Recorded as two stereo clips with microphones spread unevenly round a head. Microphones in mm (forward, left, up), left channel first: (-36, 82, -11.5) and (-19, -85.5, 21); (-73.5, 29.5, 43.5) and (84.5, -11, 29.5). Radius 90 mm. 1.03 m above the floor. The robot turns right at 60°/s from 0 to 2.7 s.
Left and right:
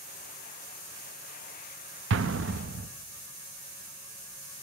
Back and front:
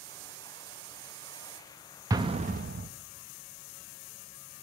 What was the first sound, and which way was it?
An explosion, 90° right.